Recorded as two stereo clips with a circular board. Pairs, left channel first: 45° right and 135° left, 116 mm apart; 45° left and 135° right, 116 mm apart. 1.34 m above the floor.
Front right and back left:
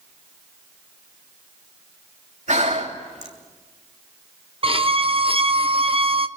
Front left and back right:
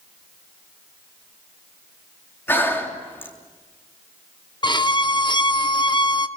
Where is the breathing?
120° left, 3 m.